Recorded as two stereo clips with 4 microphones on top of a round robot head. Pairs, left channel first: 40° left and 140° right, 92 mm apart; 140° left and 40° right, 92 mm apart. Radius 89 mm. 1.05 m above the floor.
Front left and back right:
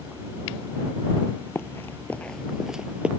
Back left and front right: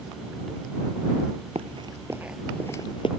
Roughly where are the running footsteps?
Ahead right.